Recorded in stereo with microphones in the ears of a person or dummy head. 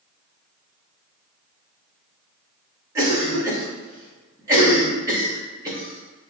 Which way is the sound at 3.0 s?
20° right (ahead or behind).